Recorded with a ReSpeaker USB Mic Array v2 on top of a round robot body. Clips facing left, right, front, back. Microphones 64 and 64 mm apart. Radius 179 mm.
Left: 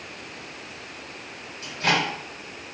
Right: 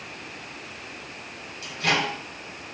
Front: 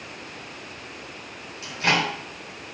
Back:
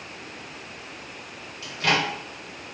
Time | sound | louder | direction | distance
1.6 | a microwave | left 1 dB, front 1 dB | 55° left | 1.5 m